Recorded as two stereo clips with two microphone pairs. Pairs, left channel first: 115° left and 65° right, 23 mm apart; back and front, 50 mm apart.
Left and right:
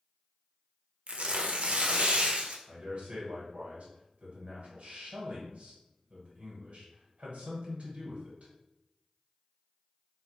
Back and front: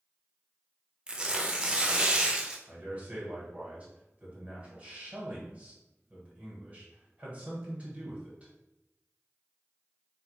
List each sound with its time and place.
1.1 s tearing paper: 70° right, 0.5 m
2.7 s a man speaking: 55° right, 1.5 m